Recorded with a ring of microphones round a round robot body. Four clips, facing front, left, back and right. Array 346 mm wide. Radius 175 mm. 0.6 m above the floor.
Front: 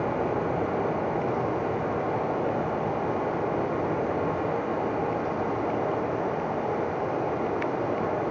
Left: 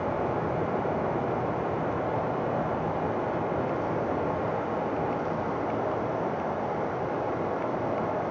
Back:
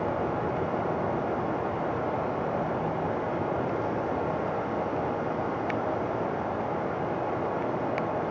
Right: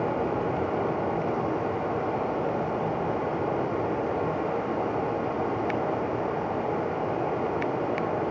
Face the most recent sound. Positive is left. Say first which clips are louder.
# right 1 dB, front 2 dB
turn(degrees=-50)